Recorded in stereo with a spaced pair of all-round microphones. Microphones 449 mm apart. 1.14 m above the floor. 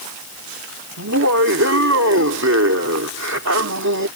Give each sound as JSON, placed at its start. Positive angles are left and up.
{"t": 1.0, "sound": "laughter", "side_deg": -35}